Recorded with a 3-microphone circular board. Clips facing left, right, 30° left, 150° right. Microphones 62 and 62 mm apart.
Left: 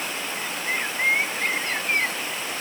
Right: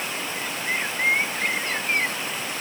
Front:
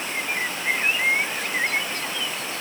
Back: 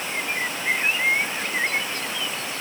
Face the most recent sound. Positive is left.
No sound to turn to.